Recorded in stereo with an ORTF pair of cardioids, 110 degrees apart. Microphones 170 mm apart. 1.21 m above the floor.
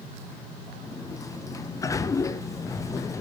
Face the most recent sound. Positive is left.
turn(degrees=20)